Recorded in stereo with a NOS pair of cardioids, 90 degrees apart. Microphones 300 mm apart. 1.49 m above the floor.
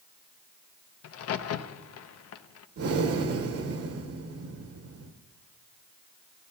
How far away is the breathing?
About 1.0 m.